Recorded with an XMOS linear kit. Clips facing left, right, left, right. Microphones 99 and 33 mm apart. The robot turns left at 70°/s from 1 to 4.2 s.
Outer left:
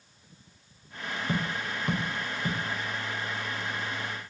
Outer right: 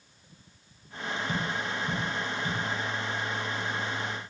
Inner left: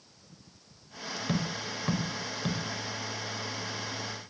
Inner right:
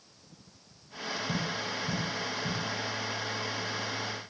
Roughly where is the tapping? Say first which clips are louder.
Outer left 2 dB, inner left 3 dB; left.